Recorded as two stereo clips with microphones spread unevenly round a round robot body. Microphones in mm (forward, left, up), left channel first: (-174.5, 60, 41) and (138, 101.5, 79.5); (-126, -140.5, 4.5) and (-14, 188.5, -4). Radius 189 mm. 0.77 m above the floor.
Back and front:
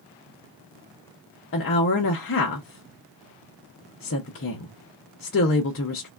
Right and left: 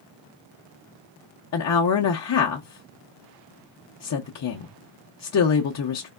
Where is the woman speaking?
145° right, 0.5 m.